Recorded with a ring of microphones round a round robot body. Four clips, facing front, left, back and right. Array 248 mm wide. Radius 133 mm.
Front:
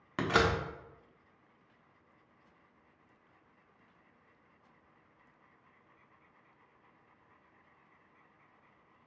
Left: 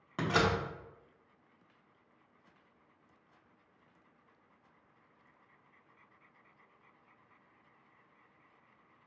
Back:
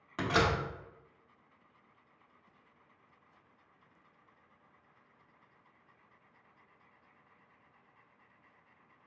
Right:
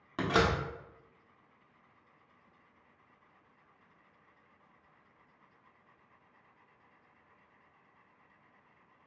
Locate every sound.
0.2 s a door slam: 5° right, 0.9 m